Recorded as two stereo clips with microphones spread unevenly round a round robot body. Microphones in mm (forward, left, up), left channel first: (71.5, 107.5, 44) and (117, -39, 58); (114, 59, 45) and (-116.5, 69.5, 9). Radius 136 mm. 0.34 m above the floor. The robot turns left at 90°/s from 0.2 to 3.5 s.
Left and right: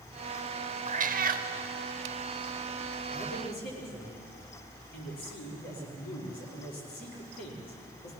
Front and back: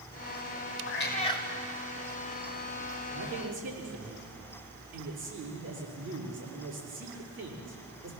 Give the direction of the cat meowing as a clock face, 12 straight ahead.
1 o'clock.